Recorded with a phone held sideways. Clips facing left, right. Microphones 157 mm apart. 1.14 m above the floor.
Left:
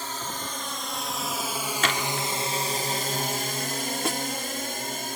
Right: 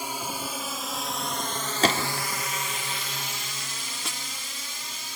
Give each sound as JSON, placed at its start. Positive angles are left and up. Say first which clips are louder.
{"t": 0.0, "sound": "a drone", "louder": "right 1 dB", "side_deg": -10}
{"t": 1.8, "sound": "a gunshot", "louder": "right 4 dB", "side_deg": -35}
{"t": 4.0, "sound": "a snare drum", "louder": "left 11 dB", "side_deg": 60}